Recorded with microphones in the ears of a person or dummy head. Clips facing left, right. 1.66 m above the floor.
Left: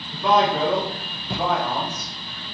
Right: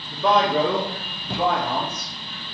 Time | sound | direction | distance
0.1 | a man speaking | 75° right (ahead or behind) | 1.7 m